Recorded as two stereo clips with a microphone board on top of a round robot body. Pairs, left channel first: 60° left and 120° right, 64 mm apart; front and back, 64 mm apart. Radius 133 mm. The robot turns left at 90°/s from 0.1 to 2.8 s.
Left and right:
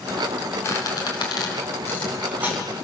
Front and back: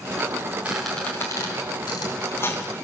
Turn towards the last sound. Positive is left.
turn(degrees=-85)